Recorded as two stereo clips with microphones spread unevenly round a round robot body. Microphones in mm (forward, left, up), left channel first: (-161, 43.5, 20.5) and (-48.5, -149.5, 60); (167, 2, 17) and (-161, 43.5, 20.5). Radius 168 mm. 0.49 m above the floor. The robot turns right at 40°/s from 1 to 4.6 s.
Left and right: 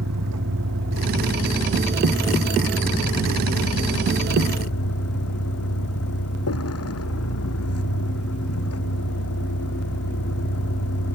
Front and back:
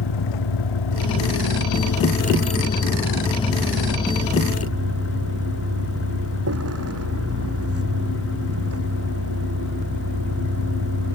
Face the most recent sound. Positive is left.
turn(degrees=125)